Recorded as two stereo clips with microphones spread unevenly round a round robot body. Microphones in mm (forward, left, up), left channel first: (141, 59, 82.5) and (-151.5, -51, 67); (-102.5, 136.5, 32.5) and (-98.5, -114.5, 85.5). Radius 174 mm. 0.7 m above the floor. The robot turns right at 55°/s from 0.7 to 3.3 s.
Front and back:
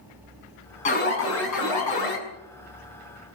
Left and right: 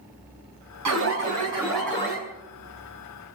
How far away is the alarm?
About 7 m.